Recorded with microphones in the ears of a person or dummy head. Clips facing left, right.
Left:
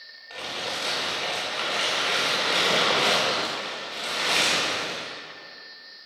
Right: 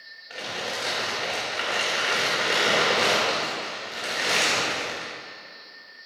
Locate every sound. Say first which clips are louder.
0.3 s crumpling: right 1 dB; 15° right (ahead or behind), 1.9 m